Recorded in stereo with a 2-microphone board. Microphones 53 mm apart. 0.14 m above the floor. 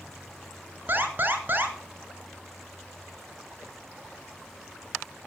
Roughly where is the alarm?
Right.